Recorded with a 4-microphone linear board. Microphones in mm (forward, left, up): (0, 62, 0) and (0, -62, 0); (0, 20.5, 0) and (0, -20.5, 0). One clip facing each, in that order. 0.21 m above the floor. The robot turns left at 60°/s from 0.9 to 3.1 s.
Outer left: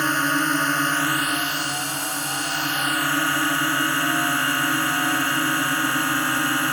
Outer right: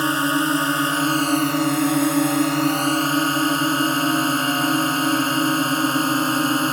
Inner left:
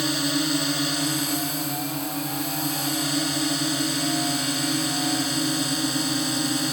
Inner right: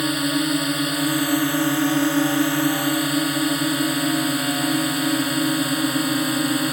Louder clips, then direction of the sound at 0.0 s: Outer right 3 dB, inner right 3 dB; 20° right.